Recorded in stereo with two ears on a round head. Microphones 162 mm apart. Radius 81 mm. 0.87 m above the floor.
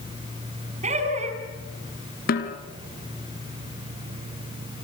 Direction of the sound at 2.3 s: 55° left (ahead or behind).